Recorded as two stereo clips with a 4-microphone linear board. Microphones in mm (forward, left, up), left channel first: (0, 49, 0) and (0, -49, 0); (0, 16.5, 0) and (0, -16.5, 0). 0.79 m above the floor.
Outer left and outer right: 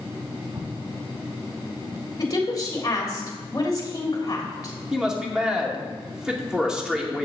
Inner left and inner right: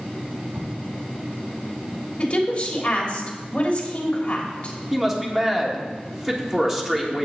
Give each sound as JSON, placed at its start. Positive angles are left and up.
{"t": 0.6, "sound": "an explosion", "side_deg": -70, "distance_m": 1.5}
{"t": 2.2, "sound": "a woman speaking", "side_deg": 40, "distance_m": 3.0}
{"t": 4.9, "sound": "a man speaking", "side_deg": -10, "distance_m": 2.0}